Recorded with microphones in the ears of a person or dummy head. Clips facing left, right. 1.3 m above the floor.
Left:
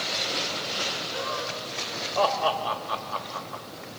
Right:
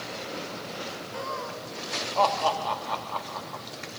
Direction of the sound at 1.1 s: 10° left (ahead or behind).